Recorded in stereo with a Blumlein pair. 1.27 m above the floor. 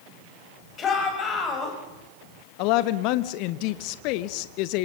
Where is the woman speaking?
45° left, 1.2 m.